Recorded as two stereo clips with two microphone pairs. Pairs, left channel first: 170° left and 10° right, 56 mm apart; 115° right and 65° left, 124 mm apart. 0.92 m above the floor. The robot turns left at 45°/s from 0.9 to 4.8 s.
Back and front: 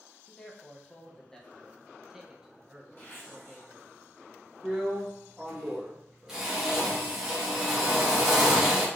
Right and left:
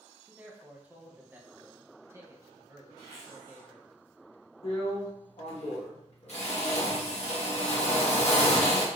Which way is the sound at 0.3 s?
125° left.